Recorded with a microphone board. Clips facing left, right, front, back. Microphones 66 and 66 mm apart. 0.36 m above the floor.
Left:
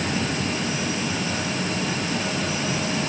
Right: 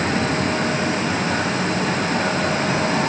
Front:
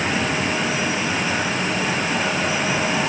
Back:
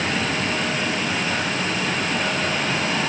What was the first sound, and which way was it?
Only background noise.